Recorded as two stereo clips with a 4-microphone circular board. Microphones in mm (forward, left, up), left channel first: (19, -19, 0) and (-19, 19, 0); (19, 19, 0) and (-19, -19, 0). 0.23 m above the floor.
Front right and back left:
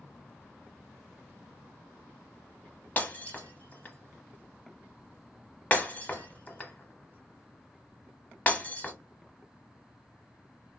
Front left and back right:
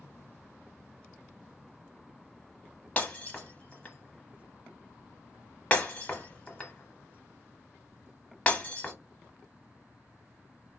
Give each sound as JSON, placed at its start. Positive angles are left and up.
{"t": 3.0, "sound": "breaking glass", "azimuth_deg": -5, "distance_m": 0.9}